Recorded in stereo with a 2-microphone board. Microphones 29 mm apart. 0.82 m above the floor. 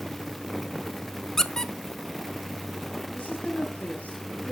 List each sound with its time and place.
1.4 s a squeak: 15° left (ahead or behind), 0.7 m
3.1 s a woman speaking: 60° left (ahead or behind), 7 m